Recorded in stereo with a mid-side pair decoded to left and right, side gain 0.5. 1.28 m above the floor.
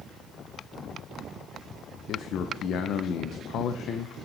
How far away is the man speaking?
About 0.6 m.